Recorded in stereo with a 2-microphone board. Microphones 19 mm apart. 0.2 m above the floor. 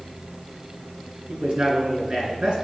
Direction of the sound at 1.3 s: 55° right (ahead or behind).